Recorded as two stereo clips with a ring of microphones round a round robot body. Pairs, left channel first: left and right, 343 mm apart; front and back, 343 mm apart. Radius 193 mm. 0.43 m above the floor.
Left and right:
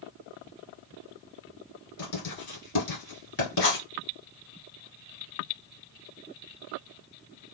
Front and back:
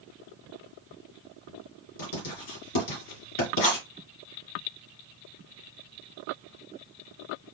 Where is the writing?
35° left, 2.5 m.